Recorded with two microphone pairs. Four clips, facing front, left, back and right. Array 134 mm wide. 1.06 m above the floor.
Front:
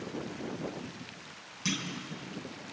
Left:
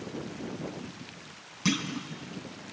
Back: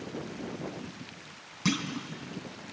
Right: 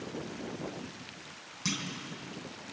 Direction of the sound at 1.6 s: 150° left.